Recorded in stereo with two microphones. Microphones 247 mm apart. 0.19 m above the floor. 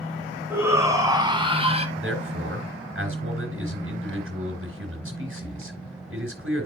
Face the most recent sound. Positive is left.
turn(degrees=-55)  # may be behind; listen again after turning